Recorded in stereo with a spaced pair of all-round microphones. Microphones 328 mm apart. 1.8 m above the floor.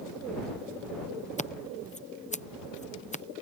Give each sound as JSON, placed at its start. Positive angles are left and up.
{"t": 1.4, "sound": "scissors", "side_deg": 20}